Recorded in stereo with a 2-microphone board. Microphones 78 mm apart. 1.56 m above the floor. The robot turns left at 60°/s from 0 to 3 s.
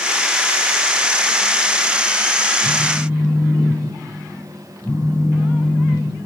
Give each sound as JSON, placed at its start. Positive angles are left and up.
{"t": 2.6, "sound": "a phone buzzing", "side_deg": -5, "distance_m": 8.0}